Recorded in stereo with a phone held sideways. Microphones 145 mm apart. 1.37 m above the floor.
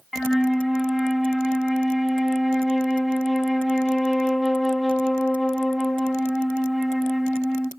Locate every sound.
0.1 s a flute: centre (ahead or behind), 0.9 m